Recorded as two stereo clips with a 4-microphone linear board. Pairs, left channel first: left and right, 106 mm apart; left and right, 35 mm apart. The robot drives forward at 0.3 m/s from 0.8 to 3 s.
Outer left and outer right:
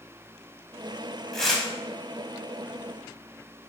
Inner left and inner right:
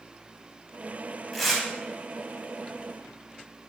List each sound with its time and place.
1.3 s tearing paper: 5° left (ahead or behind), 0.9 m